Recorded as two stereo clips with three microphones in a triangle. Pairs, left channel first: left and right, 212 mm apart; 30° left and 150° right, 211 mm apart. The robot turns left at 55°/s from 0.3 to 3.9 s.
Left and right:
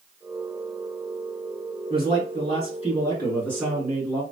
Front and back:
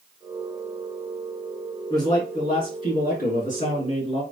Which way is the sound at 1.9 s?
95° left.